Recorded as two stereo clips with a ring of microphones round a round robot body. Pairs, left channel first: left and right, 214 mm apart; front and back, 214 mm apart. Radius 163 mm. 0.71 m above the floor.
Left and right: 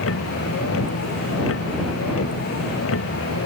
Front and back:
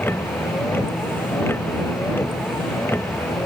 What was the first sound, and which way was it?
A vehicle, 80° left.